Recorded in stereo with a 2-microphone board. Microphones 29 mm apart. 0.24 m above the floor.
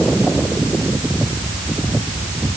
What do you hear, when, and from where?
Only background noise.